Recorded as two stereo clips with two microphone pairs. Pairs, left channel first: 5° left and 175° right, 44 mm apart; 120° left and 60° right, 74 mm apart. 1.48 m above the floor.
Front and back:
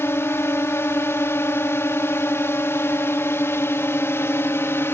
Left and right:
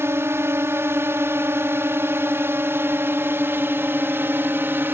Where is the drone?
5° right; by 5.0 s straight ahead.